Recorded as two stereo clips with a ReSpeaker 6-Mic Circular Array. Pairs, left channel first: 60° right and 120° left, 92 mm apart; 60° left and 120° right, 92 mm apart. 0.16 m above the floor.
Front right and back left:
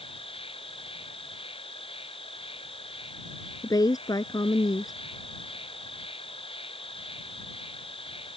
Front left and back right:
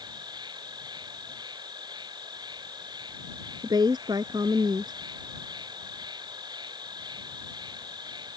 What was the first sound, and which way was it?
An insect, 75° right.